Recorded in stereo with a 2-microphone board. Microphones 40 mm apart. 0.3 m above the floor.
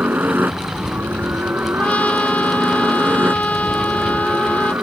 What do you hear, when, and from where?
0.0 s a helicopter: 55° right (ahead or behind); by 4.8 s 65° right (ahead or behind)
1.8 s a trumpet: 40° left (ahead or behind)